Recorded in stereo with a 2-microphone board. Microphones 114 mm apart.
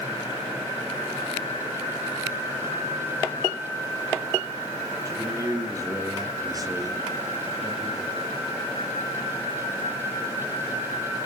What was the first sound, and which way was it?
A man speaking, 25° right (ahead or behind).